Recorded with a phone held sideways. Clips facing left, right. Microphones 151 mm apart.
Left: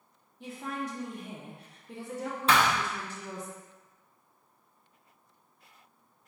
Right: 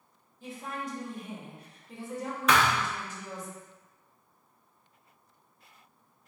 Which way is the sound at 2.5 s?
30° left (ahead or behind).